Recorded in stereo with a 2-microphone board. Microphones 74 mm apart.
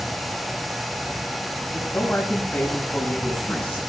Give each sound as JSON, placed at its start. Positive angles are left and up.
{"t": 1.7, "sound": "a man speaking", "side_deg": 20, "distance_m": 8.5}